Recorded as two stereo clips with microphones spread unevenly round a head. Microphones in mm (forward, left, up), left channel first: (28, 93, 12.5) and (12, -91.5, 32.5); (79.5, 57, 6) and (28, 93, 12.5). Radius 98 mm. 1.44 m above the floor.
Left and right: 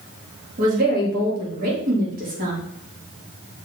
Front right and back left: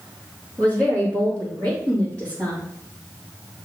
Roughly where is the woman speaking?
Behind right.